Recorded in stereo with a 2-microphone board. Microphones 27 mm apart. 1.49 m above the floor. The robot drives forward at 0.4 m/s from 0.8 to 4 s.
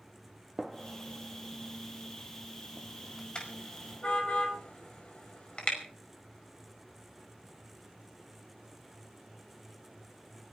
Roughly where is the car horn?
Left.